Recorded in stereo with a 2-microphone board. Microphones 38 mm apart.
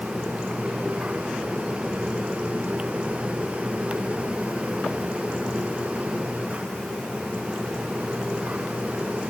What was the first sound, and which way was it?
Only background noise.